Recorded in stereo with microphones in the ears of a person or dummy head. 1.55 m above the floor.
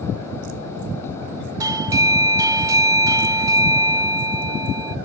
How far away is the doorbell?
About 0.8 m.